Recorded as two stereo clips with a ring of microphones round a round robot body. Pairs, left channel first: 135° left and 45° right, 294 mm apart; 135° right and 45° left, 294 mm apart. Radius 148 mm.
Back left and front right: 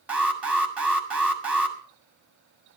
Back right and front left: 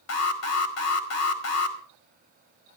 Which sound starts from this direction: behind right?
An alarm, at 0.1 s.